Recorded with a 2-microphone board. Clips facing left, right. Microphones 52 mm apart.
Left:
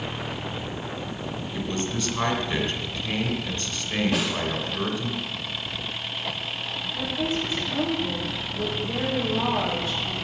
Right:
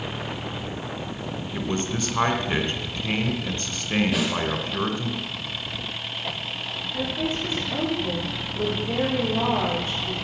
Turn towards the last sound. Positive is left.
turn(degrees=-40)  # may be behind; listen again after turning